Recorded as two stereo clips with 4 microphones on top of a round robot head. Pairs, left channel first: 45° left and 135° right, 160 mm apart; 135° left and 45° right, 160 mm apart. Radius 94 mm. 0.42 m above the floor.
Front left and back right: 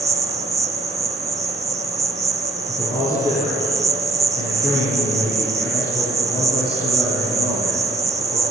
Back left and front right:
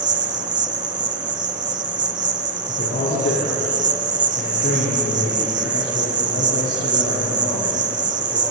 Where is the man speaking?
100° left, 7 m.